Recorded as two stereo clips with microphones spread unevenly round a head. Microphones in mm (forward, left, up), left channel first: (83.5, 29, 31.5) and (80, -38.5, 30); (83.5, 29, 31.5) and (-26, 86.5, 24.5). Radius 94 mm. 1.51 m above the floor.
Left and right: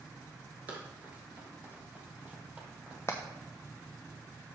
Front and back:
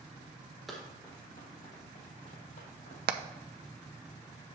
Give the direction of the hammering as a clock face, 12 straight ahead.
7 o'clock.